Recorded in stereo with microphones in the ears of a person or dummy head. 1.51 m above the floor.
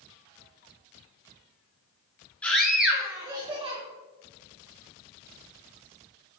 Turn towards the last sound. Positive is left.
turn(degrees=-30)  # may be behind; listen again after turning